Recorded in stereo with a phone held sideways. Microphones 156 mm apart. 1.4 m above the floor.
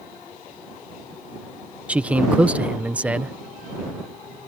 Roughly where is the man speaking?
Centre.